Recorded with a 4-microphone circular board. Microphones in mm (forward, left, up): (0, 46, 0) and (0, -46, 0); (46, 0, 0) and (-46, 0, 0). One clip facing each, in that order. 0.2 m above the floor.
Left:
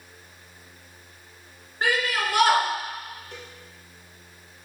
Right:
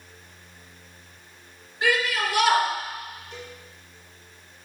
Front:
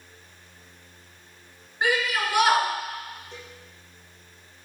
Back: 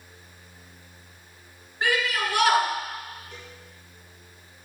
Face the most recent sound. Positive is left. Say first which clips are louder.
# right 2 dB, front 1 dB
turn(degrees=65)